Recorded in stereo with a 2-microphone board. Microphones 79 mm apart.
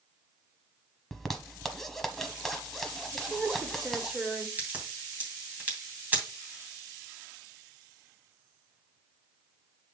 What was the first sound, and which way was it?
A zipper, 5° left (ahead or behind).